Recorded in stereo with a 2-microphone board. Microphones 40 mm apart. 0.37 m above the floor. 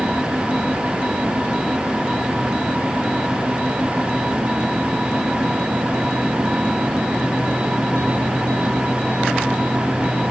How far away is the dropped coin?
I don't hear a dropped coin.